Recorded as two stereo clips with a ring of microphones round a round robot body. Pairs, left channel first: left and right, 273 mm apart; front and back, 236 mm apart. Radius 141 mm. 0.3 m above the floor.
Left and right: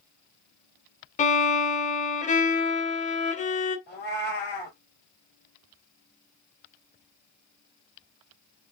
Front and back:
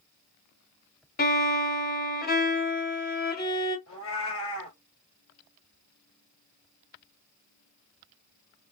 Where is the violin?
35° left, 1.6 m.